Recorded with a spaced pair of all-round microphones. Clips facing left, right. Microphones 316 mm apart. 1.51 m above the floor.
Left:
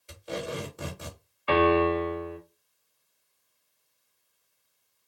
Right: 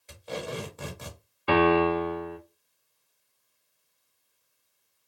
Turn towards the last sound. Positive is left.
turn(degrees=-50)  # may be behind; listen again after turning